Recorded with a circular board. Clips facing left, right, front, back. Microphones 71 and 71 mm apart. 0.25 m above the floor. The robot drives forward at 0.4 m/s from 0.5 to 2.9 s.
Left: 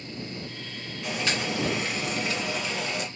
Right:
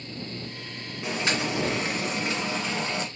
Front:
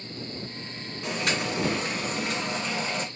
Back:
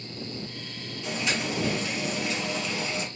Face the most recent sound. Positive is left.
turn(degrees=-40)